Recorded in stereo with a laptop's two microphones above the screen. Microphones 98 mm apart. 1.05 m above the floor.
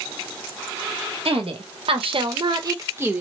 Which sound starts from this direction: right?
A woman speaking, at 1.2 s.